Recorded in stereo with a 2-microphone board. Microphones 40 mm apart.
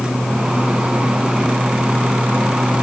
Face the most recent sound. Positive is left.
No sound to turn to.